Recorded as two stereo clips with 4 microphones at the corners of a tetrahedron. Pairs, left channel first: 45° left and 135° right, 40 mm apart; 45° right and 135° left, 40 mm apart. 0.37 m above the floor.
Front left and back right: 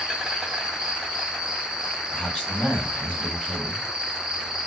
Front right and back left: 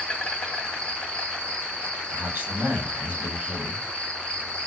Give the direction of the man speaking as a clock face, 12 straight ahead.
8 o'clock.